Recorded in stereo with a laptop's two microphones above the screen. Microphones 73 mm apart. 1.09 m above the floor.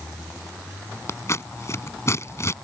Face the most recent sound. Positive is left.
turn(degrees=45)  # may be behind; listen again after turning